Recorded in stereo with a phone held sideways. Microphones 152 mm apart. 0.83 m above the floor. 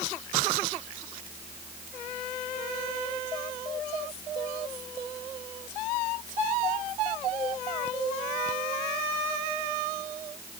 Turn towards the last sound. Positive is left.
No sound to turn to.